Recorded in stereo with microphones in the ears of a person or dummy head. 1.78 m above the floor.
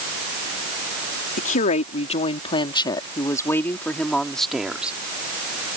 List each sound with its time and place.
1.4 s a woman speaking: 50° left (ahead or behind); by 5.0 s 5° right (ahead or behind)